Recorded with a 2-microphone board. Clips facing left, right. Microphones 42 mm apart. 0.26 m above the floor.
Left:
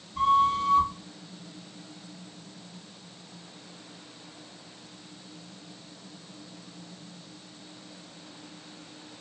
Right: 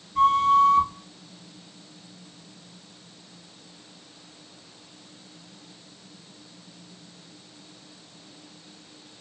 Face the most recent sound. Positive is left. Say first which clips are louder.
# right 4 dB
turn(degrees=-70)  # may be behind; listen again after turning